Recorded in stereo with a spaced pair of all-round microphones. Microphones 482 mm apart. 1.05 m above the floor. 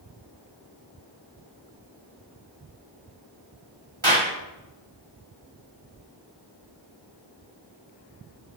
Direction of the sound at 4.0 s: 65° right (ahead or behind).